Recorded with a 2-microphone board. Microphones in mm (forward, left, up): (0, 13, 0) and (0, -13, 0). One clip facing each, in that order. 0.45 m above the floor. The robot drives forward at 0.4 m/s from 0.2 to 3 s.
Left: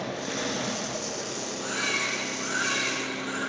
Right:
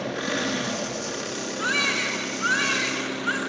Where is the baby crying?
65° right (ahead or behind), 4 m; by 3.4 s 60° right (ahead or behind), 4.5 m.